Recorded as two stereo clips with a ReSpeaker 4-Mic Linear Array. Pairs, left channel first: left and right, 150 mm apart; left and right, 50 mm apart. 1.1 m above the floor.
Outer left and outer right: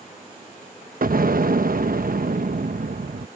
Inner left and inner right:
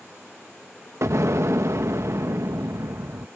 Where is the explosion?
75° right (ahead or behind).